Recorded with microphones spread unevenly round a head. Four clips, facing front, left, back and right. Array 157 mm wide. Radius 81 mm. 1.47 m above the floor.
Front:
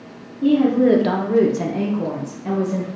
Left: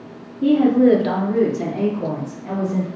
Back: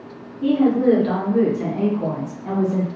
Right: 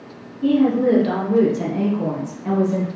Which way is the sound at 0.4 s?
70° left.